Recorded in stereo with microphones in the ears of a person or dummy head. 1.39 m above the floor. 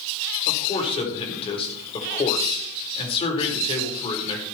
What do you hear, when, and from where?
0.5 s a man speaking: 25° left (ahead or behind), 4 m